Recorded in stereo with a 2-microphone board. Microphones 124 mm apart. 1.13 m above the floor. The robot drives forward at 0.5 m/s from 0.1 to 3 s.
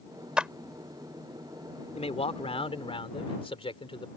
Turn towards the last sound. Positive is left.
turn(degrees=50)  # may be behind; listen again after turning